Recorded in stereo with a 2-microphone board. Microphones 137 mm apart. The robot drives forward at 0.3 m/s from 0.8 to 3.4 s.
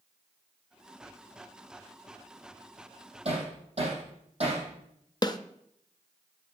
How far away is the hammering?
About 4.5 m.